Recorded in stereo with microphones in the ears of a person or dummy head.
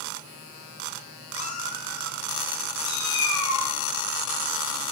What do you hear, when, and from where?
1.4 s a cat meowing: 40° left (ahead or behind), 2.5 m; by 3.7 s 15° left (ahead or behind), 5 m